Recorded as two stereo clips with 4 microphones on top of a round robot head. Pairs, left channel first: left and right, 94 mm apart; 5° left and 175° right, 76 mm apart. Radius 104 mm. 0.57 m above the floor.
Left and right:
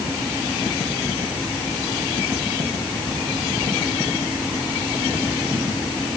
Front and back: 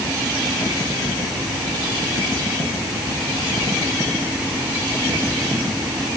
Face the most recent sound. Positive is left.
No sound to turn to.